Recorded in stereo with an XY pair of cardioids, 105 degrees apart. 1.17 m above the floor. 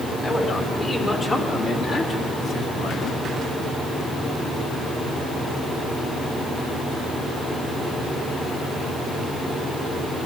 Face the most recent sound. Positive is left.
turn(degrees=75)